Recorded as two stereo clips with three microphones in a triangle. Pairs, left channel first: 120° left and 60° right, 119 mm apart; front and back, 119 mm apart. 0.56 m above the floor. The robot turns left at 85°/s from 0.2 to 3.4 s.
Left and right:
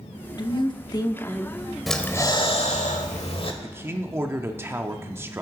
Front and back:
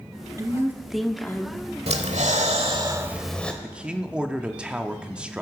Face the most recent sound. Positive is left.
turn(degrees=-105)